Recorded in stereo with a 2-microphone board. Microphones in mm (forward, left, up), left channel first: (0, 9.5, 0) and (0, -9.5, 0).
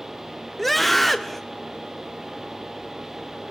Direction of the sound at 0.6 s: 5° left (ahead or behind).